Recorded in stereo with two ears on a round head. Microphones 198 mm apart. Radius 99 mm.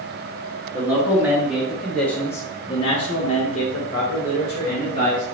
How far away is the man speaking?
About 1.4 m.